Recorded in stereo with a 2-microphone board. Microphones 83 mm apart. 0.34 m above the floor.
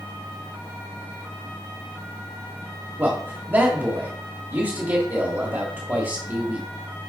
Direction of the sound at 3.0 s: 30° right (ahead or behind).